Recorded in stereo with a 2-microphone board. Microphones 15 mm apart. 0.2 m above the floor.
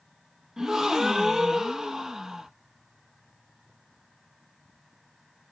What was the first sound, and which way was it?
A gasp, 35° right (ahead or behind).